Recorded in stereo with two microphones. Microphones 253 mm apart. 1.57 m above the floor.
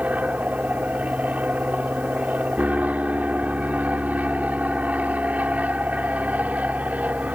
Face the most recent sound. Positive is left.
turn(degrees=-5)  # may be behind; listen again after turning